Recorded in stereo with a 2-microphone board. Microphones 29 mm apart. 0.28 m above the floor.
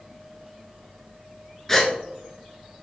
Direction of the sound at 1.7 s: 15° left (ahead or behind).